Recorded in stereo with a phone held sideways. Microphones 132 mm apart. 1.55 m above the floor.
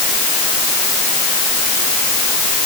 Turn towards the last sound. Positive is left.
No sound to turn to.